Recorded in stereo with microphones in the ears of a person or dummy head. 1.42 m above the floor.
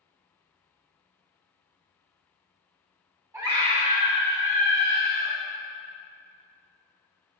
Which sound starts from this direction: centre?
A scream, at 3.3 s.